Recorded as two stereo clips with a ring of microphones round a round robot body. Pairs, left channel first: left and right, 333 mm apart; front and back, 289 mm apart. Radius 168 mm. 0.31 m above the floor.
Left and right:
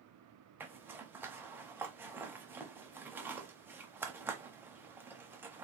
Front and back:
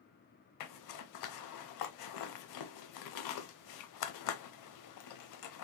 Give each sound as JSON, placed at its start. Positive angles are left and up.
{"t": 0.6, "sound": "a zipper", "azimuth_deg": -5, "distance_m": 0.6}